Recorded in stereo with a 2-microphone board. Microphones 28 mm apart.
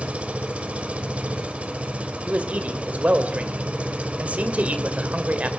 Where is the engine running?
50° right (ahead or behind), 1.2 m.